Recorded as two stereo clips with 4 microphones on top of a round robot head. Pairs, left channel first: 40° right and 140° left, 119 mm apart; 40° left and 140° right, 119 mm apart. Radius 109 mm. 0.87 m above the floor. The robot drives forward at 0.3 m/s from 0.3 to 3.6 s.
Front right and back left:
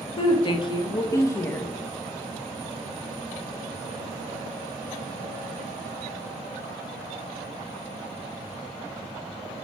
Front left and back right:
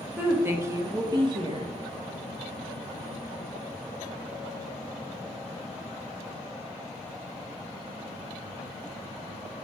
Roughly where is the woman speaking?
Right.